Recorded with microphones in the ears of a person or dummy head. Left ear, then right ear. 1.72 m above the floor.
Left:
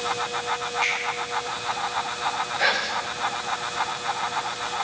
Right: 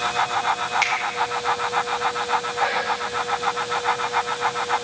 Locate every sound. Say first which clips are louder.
0.8 s a finger snap: right 2 dB; 50° right (ahead or behind), 4 m
2.6 s whispering: right 1 dB; 80° left, 2 m